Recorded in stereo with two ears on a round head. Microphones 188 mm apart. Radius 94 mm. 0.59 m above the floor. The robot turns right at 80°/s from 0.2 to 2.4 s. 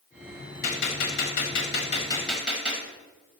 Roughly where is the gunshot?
Ahead left.